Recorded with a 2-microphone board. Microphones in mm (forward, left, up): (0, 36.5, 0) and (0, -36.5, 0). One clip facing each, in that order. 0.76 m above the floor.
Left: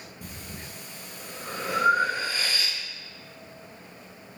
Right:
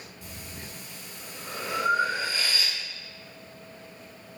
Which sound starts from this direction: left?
Breathing, at 0.2 s.